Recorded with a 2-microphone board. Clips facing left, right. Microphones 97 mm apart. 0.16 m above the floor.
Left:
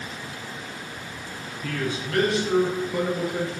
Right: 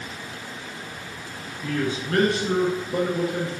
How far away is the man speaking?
About 1.5 m.